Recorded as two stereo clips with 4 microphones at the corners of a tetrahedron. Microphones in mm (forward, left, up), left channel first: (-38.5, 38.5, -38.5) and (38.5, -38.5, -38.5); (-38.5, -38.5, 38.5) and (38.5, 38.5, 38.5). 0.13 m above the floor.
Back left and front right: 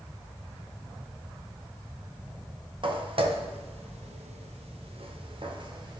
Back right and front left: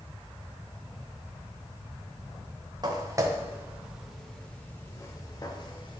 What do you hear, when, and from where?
2.8 s footsteps: 5° right, 1.6 m; by 6.0 s 90° right, 2.0 m